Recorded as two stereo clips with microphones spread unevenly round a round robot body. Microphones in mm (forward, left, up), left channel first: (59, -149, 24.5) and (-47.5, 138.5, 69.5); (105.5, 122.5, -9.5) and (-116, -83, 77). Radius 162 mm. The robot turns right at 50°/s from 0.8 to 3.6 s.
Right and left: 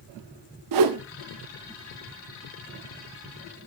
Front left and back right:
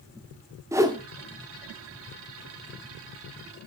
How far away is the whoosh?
About 1.0 m.